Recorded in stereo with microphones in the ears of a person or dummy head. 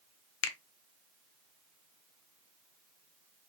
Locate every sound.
0.4 s a finger snap: 70° left (ahead or behind), 0.6 m